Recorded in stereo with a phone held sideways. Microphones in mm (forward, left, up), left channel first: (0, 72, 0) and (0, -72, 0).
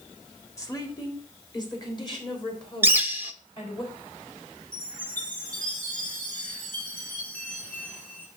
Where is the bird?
15° right (ahead or behind), 0.8 m.